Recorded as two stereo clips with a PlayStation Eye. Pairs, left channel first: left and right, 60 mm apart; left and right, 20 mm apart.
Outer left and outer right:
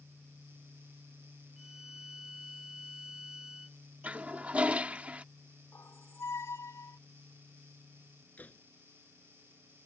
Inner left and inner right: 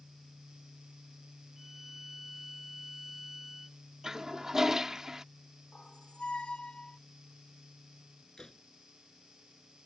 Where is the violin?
10° right (ahead or behind).